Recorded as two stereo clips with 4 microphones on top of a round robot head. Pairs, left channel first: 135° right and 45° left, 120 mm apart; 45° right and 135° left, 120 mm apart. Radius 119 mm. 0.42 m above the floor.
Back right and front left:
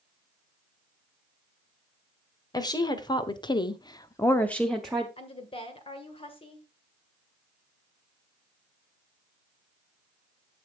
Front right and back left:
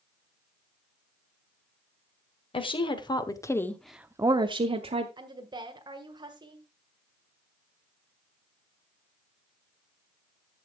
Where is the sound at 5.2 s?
170° right, 1.7 m.